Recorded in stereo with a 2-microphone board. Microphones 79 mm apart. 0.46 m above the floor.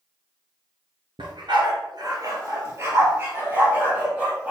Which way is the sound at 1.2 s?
80° right.